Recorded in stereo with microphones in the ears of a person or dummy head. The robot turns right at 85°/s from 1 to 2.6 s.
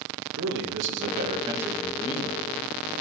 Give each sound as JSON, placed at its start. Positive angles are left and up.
{"t": 0.4, "sound": "a man speaking", "azimuth_deg": -65, "distance_m": 1.7}